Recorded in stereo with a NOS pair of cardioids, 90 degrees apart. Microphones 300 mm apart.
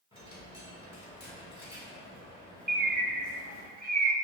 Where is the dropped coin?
20° left, 1.5 m.